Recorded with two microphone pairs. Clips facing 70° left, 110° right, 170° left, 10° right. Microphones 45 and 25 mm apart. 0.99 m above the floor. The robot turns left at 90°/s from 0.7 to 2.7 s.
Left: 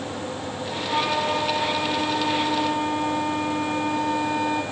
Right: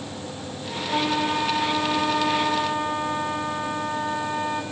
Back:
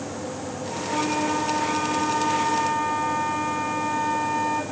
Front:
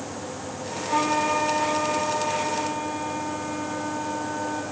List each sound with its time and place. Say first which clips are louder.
0.9 s a flute: even, front 2 dB; 10° right, 2.5 m; by 4.6 s 170° right, 2.5 m